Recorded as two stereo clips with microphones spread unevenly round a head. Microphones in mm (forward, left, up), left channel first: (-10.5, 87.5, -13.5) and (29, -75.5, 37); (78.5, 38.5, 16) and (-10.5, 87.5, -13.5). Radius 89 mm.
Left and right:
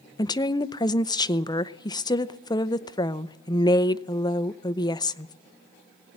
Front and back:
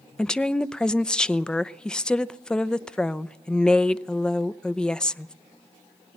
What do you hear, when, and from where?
0.2 s a woman speaking: 65° left, 0.7 m